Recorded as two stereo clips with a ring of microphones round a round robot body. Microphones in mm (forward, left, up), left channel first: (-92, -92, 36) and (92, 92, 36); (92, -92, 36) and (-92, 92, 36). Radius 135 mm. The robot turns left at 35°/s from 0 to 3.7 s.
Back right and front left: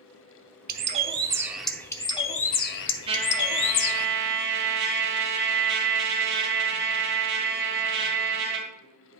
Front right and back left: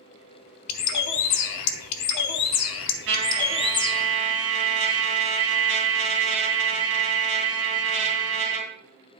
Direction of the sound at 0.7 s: 10° right.